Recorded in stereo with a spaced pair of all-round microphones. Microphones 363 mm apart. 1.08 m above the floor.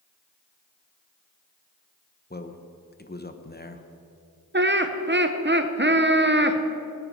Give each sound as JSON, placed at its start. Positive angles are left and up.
{"t": 2.3, "sound": "a man speaking", "side_deg": 25, "distance_m": 1.0}
{"t": 4.5, "sound": "laughter", "side_deg": -30, "distance_m": 0.8}